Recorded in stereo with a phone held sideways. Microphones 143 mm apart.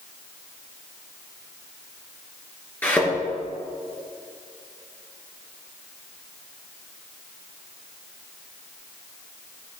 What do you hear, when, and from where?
2.8 s a thud: 15° left (ahead or behind), 3.5 m